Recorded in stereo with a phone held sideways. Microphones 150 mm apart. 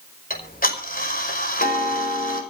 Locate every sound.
0.3 s ticking: 65° left (ahead or behind), 5 m